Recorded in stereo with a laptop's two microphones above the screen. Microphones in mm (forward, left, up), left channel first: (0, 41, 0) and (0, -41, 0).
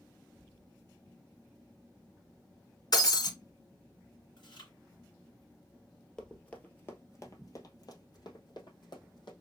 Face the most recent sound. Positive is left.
turn(degrees=70)  # may be behind; listen again after turning